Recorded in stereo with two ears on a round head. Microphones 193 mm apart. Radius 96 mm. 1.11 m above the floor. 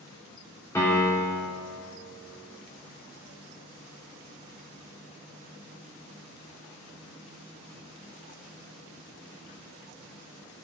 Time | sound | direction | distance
0.8 | a piano | 15° left (ahead or behind) | 3 m